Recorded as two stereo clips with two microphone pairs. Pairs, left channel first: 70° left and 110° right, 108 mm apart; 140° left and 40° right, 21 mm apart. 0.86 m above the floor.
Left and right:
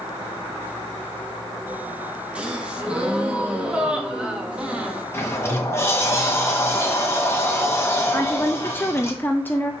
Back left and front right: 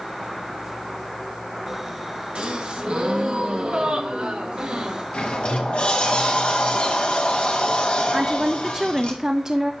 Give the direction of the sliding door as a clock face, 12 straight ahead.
8 o'clock.